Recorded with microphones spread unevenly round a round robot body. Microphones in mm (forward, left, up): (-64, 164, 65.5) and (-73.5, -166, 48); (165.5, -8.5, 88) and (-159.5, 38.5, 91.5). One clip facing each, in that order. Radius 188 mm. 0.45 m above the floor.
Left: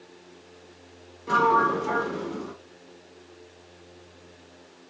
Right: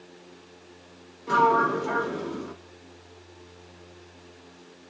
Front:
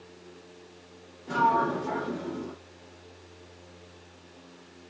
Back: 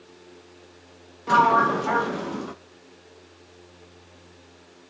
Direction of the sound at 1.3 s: Straight behind.